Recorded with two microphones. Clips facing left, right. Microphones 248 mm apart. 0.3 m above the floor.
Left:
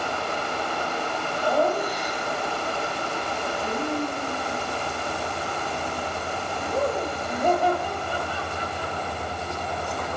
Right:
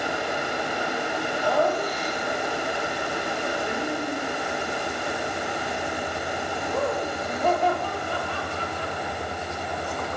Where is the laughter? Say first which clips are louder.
Left 1 dB; 10° left (ahead or behind), 1.6 m.